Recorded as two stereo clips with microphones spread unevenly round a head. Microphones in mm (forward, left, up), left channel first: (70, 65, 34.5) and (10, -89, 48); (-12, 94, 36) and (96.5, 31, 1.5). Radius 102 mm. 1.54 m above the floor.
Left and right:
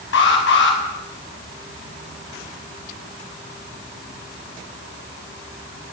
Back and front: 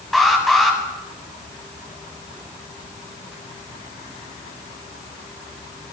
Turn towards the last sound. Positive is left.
turn(degrees=65)